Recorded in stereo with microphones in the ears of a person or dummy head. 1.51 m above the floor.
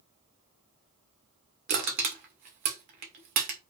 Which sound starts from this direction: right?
Crushing, at 1.7 s.